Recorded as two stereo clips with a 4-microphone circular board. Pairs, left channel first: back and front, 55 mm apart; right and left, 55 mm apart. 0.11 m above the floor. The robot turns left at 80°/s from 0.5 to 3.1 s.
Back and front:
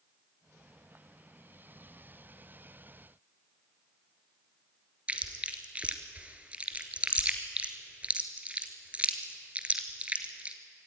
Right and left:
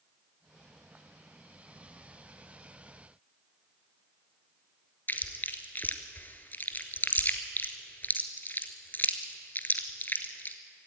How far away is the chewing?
About 1.3 m.